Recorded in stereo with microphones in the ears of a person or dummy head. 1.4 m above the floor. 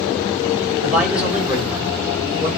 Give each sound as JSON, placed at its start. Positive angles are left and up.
{"t": 0.8, "sound": "a man speaking", "side_deg": -5, "distance_m": 5.0}